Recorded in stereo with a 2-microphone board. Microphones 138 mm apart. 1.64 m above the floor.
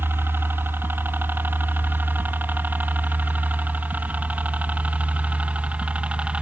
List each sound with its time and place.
0.0 s a helicopter: 15° right (ahead or behind); by 6.4 s 10° right (ahead or behind)